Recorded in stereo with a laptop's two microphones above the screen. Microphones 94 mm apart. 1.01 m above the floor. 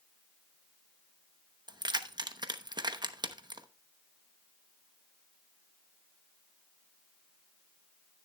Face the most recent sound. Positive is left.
turn(degrees=-50)  # may be behind; listen again after turning